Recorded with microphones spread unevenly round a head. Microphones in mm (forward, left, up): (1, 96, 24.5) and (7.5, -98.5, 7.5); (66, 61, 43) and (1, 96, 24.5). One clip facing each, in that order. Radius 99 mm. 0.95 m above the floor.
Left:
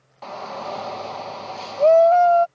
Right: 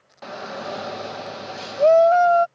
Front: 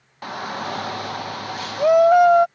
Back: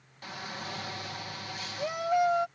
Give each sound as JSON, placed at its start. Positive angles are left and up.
{"t": 0.2, "sound": "a shout", "azimuth_deg": -30}